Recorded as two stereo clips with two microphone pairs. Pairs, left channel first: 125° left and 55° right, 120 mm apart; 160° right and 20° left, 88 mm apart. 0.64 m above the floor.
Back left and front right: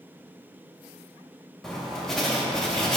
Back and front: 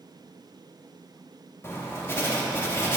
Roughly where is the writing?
Behind right.